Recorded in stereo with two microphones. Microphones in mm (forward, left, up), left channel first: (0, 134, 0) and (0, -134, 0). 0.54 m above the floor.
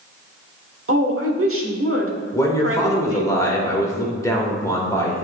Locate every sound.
0.9 s a woman speaking: 55° right (ahead or behind), 1.3 m
2.3 s a man speaking: 10° left (ahead or behind), 1.7 m